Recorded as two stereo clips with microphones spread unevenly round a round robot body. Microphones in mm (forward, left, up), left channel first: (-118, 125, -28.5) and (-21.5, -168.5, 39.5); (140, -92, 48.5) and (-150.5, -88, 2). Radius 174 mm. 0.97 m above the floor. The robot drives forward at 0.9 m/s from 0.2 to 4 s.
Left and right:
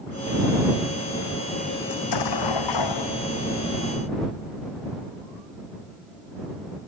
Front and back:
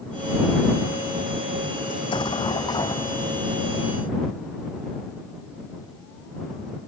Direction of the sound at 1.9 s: 75° left.